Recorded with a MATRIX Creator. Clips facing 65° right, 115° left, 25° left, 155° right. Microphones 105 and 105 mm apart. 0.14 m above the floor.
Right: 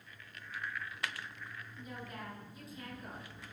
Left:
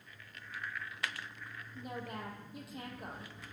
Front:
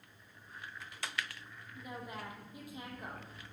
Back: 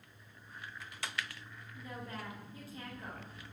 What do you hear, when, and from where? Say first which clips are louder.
1.8 s a woman speaking: left 5 dB, even; 95° left, 5.5 m